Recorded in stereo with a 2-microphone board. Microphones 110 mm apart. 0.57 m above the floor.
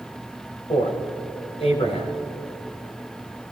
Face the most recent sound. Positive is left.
turn(degrees=60)  # may be behind; listen again after turning